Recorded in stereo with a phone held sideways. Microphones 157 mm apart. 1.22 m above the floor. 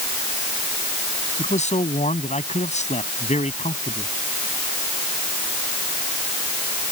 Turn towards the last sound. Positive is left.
turn(degrees=50)  # may be behind; listen again after turning